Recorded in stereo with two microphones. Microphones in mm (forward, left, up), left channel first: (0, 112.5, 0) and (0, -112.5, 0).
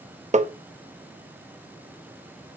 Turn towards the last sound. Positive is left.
turn(degrees=-35)  # may be behind; listen again after turning